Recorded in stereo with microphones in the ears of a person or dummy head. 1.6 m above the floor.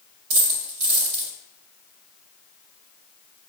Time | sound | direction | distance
0.3 | a dropped coin | 45° right (ahead or behind) | 1.8 m